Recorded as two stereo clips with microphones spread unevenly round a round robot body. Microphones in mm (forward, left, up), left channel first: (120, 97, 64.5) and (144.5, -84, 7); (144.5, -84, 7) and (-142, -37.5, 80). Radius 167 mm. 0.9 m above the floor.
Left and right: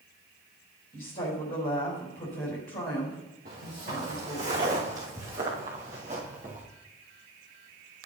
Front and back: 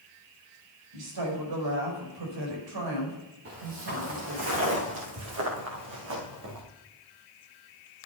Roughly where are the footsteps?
Behind right.